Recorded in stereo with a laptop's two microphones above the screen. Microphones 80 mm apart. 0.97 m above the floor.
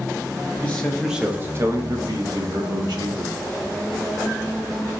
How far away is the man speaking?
About 0.5 m.